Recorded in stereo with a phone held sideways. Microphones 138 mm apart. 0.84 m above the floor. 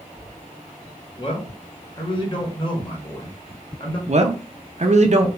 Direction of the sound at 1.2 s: 35° left (ahead or behind).